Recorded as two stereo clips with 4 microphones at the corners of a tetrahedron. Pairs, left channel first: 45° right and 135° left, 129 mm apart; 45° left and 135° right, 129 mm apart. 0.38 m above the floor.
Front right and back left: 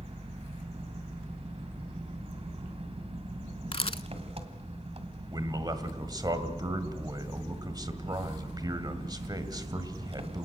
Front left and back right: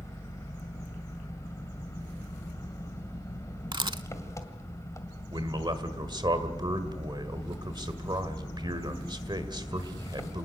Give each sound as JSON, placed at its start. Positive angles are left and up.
{"t": 0.0, "sound": "an engine running", "azimuth_deg": 110, "distance_m": 2.0}
{"t": 3.7, "sound": "a camera shutter", "azimuth_deg": -85, "distance_m": 0.5}
{"t": 5.3, "sound": "a man speaking", "azimuth_deg": 180, "distance_m": 1.7}